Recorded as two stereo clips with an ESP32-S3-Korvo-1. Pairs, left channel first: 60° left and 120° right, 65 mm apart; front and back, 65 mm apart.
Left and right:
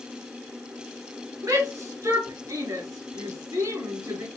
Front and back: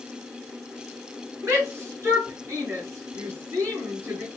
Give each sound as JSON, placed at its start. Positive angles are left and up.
{"t": 1.4, "sound": "a shout", "azimuth_deg": -135, "distance_m": 3.5}